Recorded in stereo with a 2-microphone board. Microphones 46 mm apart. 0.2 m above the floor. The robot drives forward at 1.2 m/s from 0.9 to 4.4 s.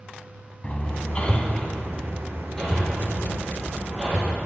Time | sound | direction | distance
0.6 | hammering | 30° left (ahead or behind) | 1.0 m